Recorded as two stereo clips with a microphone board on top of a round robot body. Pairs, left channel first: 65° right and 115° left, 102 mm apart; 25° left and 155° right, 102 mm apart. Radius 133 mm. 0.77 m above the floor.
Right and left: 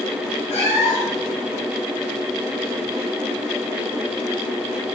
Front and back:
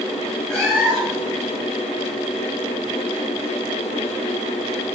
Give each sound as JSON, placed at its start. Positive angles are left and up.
{"t": 0.5, "sound": "a cat meowing", "azimuth_deg": -60, "distance_m": 7.0}